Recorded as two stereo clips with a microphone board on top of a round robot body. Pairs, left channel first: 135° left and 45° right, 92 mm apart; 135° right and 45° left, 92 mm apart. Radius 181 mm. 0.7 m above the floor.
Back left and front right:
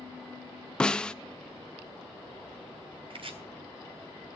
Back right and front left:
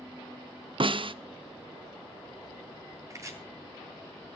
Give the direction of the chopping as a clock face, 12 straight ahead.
12 o'clock.